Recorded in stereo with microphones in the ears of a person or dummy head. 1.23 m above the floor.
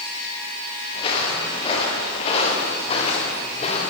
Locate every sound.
0.9 s footsteps: 35° left (ahead or behind), 8.5 m; by 3.9 s 40° left (ahead or behind), 6.5 m